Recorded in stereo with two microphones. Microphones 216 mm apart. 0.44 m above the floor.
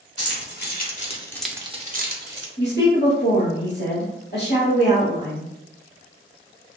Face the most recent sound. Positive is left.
turn(degrees=55)  # may be behind; listen again after turning